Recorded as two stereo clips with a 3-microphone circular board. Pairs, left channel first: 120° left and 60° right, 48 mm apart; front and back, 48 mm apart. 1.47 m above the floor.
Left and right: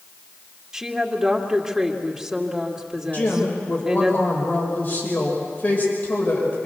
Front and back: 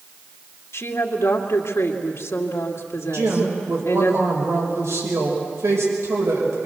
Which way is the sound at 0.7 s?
20° left.